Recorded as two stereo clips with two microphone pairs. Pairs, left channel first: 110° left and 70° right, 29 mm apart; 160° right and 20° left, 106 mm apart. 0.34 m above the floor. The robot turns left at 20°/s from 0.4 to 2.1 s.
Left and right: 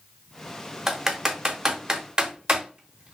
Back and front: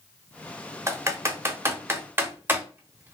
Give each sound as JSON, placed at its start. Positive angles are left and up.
{"t": 0.9, "sound": "typing on a keyboard", "azimuth_deg": 0, "distance_m": 0.6}